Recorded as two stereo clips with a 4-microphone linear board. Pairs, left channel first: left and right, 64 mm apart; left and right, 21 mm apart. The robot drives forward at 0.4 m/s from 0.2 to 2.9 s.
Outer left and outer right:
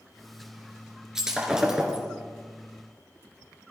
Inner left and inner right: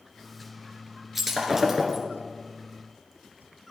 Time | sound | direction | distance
1.1 | breaking glass | 5° right (ahead or behind) | 2.5 m